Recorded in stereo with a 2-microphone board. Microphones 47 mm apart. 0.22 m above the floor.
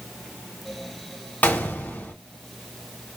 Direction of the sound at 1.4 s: 40° left (ahead or behind).